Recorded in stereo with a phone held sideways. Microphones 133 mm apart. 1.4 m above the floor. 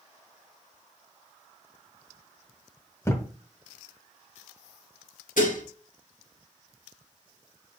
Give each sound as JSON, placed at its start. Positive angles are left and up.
{"t": 3.0, "sound": "a thud", "side_deg": 20, "distance_m": 1.5}
{"t": 5.4, "sound": "dishes clattering", "side_deg": 75, "distance_m": 2.5}